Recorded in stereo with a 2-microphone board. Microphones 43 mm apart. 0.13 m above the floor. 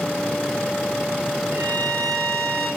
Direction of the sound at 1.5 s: 85° right.